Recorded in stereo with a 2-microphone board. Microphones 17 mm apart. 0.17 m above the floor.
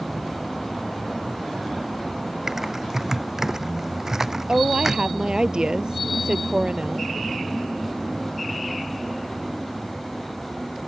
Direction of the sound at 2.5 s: 25° right (ahead or behind).